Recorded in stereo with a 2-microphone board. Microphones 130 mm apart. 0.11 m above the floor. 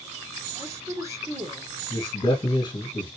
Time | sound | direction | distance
0.6 | a woman speaking | 25° right (ahead or behind) | 1.7 m
1.9 | a man speaking | 35° left (ahead or behind) | 2 m